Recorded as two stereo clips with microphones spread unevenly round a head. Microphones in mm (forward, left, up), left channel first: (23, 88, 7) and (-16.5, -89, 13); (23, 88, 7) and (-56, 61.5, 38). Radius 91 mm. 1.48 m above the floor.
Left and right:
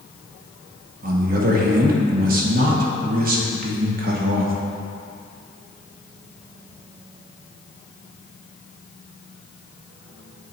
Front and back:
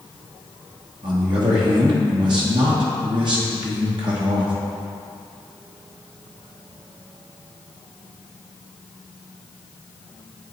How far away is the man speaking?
About 1.1 m.